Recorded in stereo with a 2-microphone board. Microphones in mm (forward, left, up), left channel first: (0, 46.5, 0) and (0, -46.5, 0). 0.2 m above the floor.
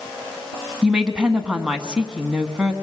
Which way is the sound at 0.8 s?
5° right (ahead or behind).